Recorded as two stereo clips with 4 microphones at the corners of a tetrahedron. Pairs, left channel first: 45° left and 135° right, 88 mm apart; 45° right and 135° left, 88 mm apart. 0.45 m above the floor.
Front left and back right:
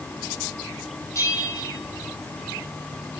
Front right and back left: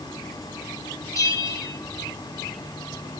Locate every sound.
1.1 s a bell: 5° right, 3 m